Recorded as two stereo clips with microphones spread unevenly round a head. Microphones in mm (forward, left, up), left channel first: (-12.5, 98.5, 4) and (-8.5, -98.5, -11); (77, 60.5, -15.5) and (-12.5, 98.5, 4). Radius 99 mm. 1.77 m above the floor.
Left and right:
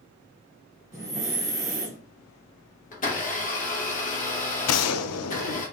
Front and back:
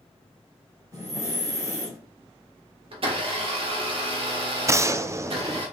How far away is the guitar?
I don't hear a guitar.